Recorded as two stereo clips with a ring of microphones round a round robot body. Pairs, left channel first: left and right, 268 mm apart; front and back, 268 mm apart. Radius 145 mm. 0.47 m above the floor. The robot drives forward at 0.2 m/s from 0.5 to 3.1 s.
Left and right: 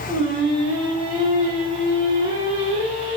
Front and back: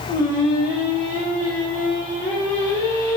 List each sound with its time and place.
0.1 s singing: 35° right, 1.5 m; by 3.2 s 65° right, 1.4 m